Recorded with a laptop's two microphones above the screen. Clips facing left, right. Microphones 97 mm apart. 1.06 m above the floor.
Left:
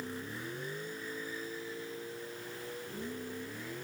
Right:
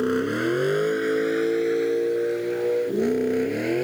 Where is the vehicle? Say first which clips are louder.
Right 19 dB; 75° right (ahead or behind).